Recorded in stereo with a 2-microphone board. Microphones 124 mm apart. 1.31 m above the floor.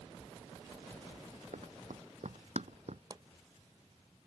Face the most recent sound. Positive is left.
turn(degrees=-35)  # may be behind; listen again after turning